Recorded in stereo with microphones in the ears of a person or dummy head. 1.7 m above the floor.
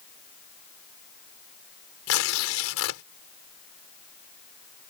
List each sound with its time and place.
2.1 s tearing paper: 85° left